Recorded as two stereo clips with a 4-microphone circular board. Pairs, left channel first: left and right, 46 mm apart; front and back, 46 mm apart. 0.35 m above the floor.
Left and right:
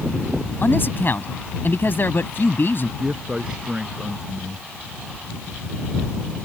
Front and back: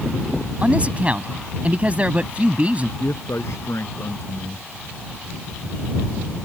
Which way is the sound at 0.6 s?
120° left.